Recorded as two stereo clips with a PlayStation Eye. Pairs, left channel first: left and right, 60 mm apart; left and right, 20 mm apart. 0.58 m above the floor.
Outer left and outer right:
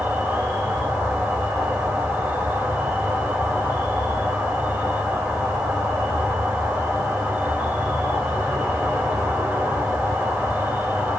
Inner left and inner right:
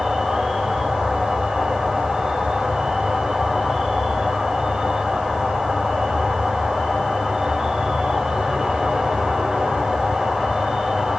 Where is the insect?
30° right (ahead or behind), 1.4 m.